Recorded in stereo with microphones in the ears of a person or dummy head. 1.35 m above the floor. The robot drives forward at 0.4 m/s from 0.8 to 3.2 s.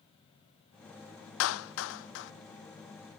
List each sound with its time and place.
1.4 s a clap: 80° left; by 2.3 s 60° left (ahead or behind)